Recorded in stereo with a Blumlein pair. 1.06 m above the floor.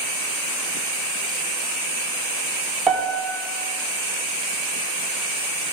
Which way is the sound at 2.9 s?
15° right.